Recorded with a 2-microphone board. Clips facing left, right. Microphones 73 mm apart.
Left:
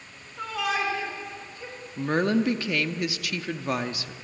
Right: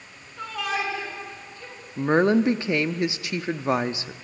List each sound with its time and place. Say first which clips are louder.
0.4 s a shout: left 1 dB; centre (ahead or behind), 9 m; by 1.8 s 15° left (ahead or behind), 8.5 m
2.0 s a woman speaking: right 5 dB; 25° right (ahead or behind), 0.7 m